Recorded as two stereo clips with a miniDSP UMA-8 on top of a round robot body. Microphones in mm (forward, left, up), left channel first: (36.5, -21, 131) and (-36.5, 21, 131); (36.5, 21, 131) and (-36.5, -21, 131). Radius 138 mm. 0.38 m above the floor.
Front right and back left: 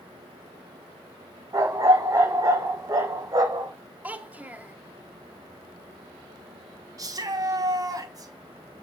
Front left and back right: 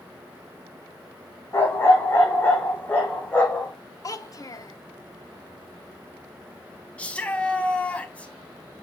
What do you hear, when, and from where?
1.5 s a dog barking: 95° left, 7 m; by 3.7 s 105° left, 7 m
4.0 s a child speaking: 80° left, 2 m
7.0 s a shout: 105° left, 4 m